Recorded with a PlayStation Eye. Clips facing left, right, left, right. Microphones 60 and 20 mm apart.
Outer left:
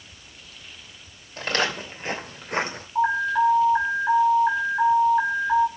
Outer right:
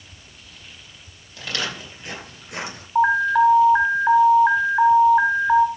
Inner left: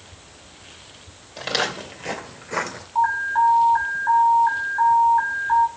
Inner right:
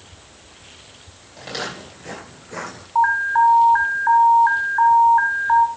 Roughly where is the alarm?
Right.